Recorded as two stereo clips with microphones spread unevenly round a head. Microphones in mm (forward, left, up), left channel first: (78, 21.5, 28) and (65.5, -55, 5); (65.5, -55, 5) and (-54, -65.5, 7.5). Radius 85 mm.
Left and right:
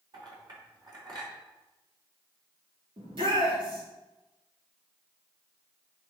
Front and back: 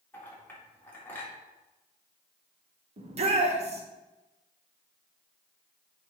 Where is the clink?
70° right, 3.5 m.